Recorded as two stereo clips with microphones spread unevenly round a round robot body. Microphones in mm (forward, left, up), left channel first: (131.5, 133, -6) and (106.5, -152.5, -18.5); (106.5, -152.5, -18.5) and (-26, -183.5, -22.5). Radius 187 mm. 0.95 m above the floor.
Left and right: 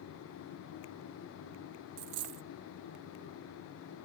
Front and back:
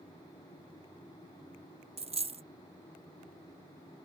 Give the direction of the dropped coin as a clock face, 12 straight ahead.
4 o'clock.